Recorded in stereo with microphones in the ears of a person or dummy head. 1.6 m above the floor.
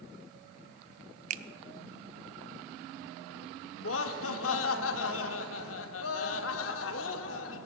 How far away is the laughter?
About 0.9 m.